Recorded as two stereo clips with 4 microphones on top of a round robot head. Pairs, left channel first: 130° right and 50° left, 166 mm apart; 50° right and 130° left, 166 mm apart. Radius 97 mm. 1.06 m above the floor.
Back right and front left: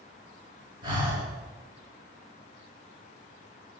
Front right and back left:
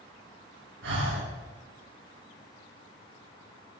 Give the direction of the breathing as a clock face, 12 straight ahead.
8 o'clock.